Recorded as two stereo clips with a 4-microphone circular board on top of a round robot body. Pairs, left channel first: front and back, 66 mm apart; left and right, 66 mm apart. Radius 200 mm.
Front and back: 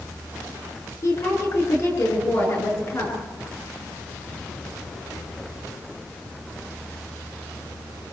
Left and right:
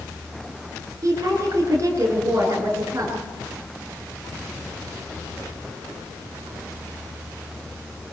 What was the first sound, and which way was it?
A woman speaking, 45° right.